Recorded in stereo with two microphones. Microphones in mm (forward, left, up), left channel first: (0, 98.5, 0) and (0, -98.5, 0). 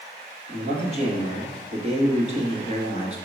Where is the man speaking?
35° right (ahead or behind), 1.4 m.